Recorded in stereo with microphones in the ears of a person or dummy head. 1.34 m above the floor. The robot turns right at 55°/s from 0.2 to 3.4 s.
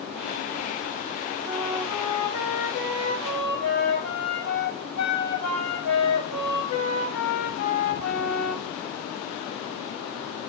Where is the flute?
25° right, 1.8 m; by 8.6 s 85° left, 1.8 m.